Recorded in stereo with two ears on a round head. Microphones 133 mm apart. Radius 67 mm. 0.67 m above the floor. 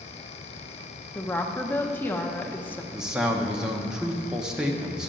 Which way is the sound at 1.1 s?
10° left (ahead or behind).